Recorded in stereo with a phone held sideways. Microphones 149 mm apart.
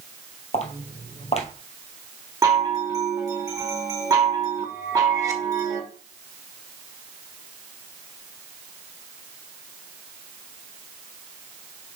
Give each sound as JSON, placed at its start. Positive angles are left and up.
{"t": 0.5, "sound": "footsteps", "side_deg": 50, "distance_m": 1.7}
{"t": 2.4, "sound": "a chime", "side_deg": -25, "distance_m": 1.5}